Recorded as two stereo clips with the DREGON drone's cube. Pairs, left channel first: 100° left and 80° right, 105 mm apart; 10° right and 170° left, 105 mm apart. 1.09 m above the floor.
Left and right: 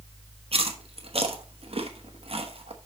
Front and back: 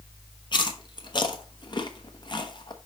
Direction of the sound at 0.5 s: 55° right.